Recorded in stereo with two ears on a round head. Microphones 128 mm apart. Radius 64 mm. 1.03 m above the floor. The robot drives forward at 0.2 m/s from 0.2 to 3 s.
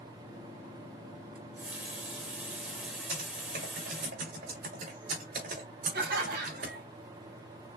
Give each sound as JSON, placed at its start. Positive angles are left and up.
{"t": 1.4, "sound": "a running tap", "side_deg": -10, "distance_m": 1.1}
{"t": 3.1, "sound": "typing on a keyboard", "side_deg": -60, "distance_m": 3.5}
{"t": 5.9, "sound": "laughter", "side_deg": -75, "distance_m": 1.8}